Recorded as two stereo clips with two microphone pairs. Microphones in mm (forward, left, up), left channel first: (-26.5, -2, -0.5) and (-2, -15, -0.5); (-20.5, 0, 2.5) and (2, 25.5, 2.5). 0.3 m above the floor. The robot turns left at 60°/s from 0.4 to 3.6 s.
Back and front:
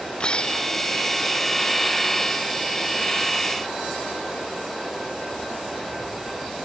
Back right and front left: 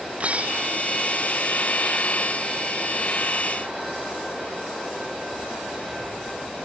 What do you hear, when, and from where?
0.2 s breaking glass: 100° left; by 0.9 s 65° left